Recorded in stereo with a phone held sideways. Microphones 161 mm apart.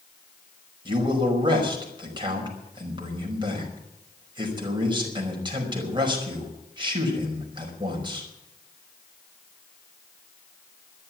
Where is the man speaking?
30° right (ahead or behind), 5.5 m.